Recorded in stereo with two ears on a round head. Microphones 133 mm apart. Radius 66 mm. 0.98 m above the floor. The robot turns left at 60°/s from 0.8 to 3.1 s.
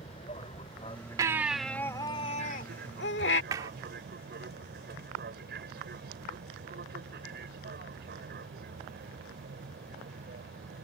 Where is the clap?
25° right (ahead or behind).